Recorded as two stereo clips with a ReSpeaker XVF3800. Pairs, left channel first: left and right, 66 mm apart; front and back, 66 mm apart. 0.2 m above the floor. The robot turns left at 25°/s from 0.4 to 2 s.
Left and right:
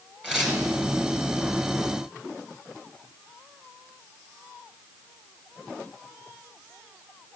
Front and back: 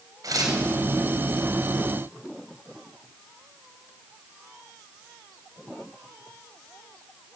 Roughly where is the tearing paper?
Behind.